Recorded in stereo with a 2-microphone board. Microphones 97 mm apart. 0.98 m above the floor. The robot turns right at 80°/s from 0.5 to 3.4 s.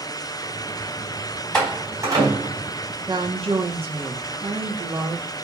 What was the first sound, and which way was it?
A door slam, 10° left (ahead or behind).